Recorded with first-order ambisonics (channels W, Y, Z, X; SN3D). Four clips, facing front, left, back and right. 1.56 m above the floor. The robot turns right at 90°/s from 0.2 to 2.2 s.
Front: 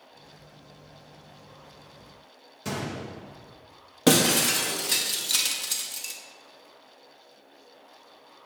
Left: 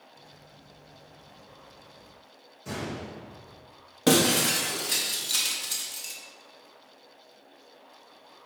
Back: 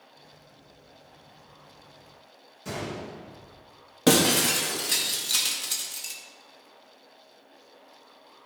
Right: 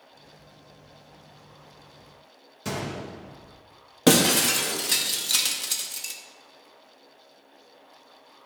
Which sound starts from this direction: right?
Breaking glass, at 4.1 s.